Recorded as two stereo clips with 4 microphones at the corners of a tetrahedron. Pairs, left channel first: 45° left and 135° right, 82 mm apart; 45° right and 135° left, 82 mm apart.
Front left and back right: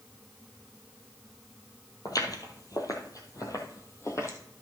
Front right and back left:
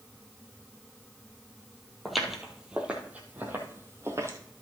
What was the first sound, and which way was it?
Footsteps, 40° left.